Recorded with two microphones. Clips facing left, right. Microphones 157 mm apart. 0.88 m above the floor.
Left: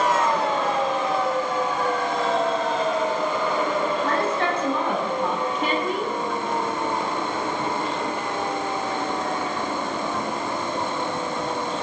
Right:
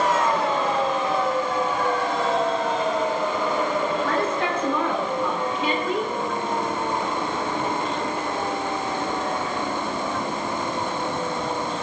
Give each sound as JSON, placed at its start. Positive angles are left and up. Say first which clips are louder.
{"t": 4.0, "sound": "a woman speaking", "louder": "left 1 dB", "side_deg": 75, "distance_m": 8.5}